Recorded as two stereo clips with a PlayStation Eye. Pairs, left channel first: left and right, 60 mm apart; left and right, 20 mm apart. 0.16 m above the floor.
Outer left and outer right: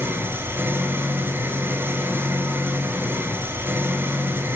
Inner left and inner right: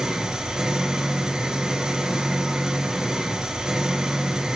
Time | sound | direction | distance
0.0 | an engine running | 35° right (ahead or behind) | 0.7 m